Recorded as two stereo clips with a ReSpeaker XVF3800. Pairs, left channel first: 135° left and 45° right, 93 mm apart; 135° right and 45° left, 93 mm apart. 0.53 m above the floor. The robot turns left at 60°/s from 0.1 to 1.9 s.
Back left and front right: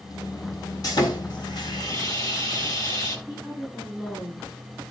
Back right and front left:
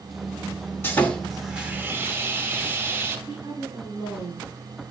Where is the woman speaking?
60° left, 4.5 m.